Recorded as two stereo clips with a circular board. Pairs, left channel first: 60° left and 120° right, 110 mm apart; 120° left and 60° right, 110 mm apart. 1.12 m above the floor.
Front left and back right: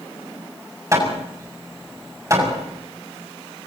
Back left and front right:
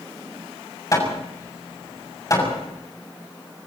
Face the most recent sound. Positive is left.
turn(degrees=180)